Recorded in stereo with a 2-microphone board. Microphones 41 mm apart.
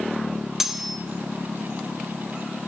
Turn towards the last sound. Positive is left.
turn(degrees=-5)  # may be behind; listen again after turning